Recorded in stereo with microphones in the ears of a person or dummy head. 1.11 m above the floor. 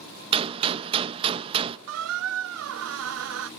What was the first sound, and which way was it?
A gunshot, 30° right (ahead or behind).